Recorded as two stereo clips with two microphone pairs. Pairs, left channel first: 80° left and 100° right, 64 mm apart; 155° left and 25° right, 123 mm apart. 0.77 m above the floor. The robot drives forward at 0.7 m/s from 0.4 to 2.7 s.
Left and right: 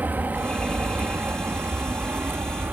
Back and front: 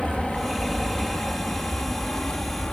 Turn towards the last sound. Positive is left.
turn(degrees=-125)